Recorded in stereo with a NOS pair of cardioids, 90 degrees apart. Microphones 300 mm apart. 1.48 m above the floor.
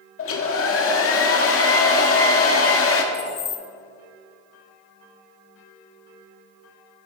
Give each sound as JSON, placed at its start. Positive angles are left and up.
{"t": 0.2, "sound": "a hair dryer", "azimuth_deg": 50, "distance_m": 2.0}
{"t": 3.1, "sound": "keys jangling", "azimuth_deg": 55, "distance_m": 1.7}